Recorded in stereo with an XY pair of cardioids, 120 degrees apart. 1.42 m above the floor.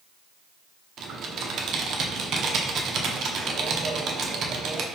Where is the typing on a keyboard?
55° right, 0.6 m.